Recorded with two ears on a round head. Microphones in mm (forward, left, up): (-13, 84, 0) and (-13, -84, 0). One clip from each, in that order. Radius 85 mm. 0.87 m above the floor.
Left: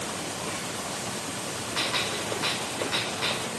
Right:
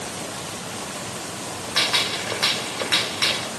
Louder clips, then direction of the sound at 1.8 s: Right 7 dB; 55° right (ahead or behind).